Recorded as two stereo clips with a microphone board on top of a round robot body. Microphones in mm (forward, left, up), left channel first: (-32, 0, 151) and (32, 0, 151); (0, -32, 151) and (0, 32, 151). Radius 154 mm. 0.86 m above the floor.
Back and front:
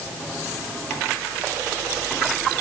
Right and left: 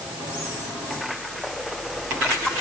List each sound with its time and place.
Only background noise.